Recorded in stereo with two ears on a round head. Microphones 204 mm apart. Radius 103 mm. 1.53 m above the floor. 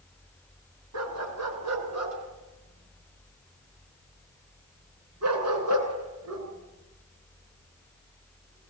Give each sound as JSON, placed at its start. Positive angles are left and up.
{"t": 0.9, "sound": "a dog barking", "side_deg": -75, "distance_m": 7.5}